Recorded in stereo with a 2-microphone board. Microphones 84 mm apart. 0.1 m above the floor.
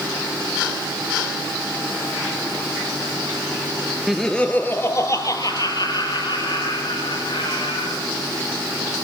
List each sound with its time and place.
4.1 s laughter: centre (ahead or behind), 1.4 m; by 8.0 s 70° left (ahead or behind), 4.5 m